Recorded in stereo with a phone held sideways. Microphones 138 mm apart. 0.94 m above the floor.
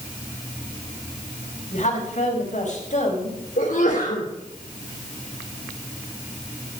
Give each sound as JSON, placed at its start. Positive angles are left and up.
{"t": 1.7, "sound": "a woman speaking", "side_deg": 60, "distance_m": 5.5}
{"t": 3.6, "sound": "a sneeze", "side_deg": 80, "distance_m": 3.0}